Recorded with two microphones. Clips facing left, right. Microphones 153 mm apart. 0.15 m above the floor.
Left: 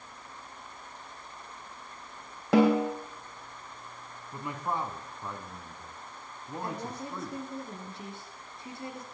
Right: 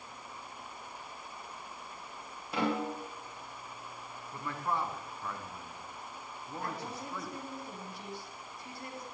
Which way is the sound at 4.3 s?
15° left (ahead or behind).